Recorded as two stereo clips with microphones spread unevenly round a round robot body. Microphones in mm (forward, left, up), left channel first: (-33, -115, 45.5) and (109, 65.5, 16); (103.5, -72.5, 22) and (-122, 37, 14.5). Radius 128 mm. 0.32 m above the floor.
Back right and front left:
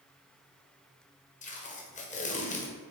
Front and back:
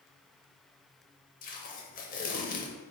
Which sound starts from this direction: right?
Tape being pulled, at 1.4 s.